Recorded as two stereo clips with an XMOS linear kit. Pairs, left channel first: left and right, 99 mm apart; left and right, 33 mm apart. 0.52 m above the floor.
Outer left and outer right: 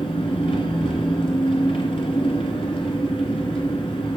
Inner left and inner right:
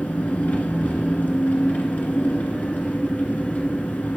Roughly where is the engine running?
Left.